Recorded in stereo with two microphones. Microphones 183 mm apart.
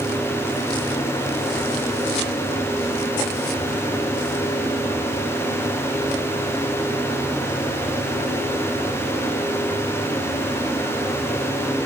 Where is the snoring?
No snoring in this recording.